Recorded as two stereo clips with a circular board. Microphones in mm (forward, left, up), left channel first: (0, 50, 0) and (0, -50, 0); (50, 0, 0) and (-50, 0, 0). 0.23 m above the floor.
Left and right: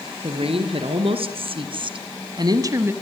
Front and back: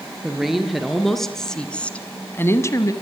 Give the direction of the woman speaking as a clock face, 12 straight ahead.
3 o'clock.